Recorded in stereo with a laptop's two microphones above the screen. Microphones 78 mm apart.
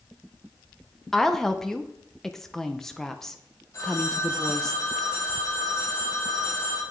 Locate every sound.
1.1 s a woman speaking: 5° left (ahead or behind), 0.7 m
3.7 s a phone ringing: 45° left (ahead or behind), 4.5 m